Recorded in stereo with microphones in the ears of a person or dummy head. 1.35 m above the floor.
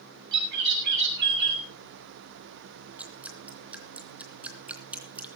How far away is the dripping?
About 3 m.